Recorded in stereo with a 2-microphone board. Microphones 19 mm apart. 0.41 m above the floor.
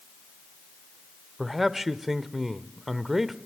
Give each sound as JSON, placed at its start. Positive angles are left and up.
{"t": 1.4, "sound": "a man speaking", "side_deg": -15, "distance_m": 0.9}